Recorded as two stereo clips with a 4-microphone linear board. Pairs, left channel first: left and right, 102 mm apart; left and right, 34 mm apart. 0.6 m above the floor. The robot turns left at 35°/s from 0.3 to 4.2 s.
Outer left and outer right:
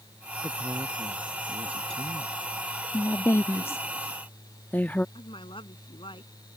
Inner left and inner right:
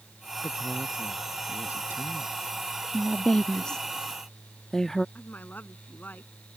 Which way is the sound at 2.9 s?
30° left (ahead or behind).